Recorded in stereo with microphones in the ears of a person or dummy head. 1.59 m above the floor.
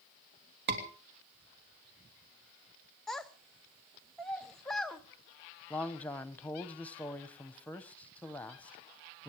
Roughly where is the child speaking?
Centre.